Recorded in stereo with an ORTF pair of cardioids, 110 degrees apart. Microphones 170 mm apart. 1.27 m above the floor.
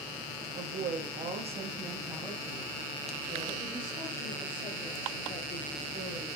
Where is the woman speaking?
70° right, 1.1 m; by 6.3 s 40° left, 3 m.